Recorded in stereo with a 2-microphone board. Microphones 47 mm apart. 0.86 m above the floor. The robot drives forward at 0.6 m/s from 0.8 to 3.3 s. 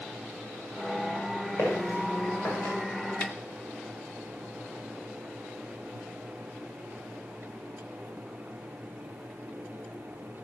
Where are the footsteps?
75° left (ahead or behind), 8 m; by 2.8 s 65° left (ahead or behind), 8 m.